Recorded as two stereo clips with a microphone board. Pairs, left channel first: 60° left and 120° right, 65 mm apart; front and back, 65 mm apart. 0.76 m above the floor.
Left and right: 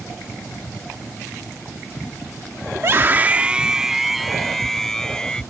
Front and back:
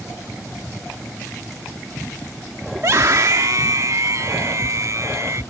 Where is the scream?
150° right; by 5.4 s 140° left.